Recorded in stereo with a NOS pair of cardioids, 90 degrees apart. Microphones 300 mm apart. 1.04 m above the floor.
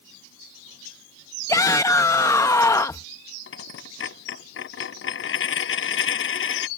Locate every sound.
1.5 s a shout: 10° left
3.5 s a dropped coin: 45° left